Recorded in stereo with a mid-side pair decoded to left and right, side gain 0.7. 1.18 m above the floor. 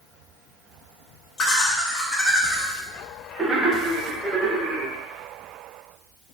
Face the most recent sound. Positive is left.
turn(degrees=-35)